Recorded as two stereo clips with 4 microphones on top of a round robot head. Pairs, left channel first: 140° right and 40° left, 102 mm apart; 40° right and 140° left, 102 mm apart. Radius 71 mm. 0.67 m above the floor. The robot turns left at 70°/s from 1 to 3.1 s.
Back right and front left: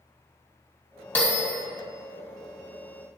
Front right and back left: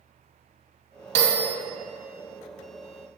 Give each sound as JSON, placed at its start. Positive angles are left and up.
{"t": 1.1, "sound": "a bell", "azimuth_deg": 140, "distance_m": 2.5}